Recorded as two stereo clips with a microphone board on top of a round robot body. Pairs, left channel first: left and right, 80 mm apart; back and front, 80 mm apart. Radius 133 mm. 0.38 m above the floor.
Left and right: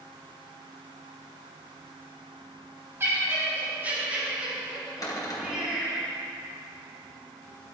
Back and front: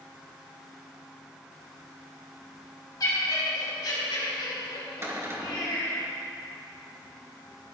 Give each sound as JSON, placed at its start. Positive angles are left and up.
{"t": 3.0, "sound": "laughter", "azimuth_deg": -145, "distance_m": 4.0}
{"t": 5.0, "sound": "a cupboard door", "azimuth_deg": 55, "distance_m": 2.5}